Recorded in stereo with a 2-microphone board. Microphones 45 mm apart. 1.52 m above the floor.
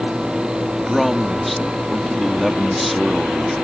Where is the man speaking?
Centre (ahead or behind).